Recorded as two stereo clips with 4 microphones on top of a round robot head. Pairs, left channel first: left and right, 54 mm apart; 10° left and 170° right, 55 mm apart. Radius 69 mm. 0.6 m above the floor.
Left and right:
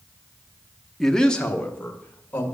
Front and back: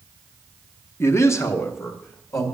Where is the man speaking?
10° left, 1.0 m; by 2.6 s 30° left, 2.5 m.